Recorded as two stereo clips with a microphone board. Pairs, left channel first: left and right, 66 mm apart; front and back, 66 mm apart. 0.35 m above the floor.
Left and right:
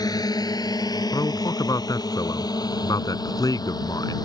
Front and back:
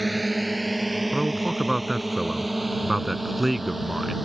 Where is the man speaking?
90° left.